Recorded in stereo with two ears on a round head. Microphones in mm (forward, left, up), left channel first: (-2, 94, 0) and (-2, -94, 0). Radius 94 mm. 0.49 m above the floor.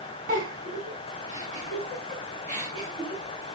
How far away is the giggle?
About 5.5 m.